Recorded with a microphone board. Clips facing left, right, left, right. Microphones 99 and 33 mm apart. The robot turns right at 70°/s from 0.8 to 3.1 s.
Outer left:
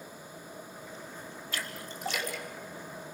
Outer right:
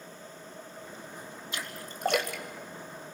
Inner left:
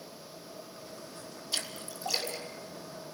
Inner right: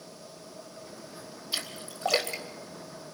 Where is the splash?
20° right (ahead or behind), 3 m; by 2.4 s 80° right, 3 m.